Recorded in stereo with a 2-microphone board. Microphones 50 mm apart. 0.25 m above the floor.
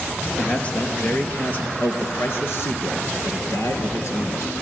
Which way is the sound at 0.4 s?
25° left (ahead or behind).